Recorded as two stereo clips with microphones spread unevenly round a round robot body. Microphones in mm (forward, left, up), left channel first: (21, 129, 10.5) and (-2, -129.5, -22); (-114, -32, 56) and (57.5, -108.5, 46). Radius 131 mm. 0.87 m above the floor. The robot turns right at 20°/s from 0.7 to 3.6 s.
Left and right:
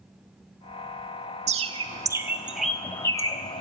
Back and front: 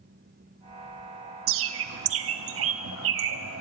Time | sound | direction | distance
1.5 | a bird | 30° right | 0.7 m